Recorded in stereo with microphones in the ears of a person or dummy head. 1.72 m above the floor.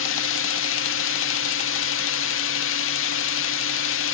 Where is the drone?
65° left (ahead or behind).